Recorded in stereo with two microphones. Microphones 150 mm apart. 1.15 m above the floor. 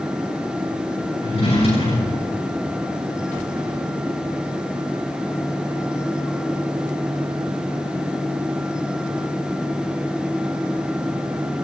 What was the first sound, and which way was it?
A drawer, 45° left (ahead or behind).